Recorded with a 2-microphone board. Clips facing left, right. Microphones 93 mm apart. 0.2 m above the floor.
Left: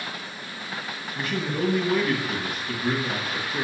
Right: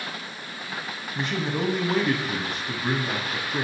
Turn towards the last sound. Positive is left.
turn(degrees=-30)  # may be behind; listen again after turning